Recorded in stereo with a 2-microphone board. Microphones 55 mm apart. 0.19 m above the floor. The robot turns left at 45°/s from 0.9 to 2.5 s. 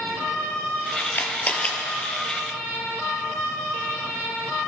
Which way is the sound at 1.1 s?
45° left (ahead or behind).